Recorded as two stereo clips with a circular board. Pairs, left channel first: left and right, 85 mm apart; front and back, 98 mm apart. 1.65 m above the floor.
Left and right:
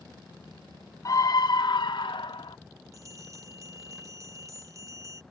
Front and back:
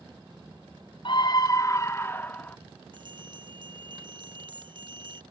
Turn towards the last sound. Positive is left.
turn(degrees=-140)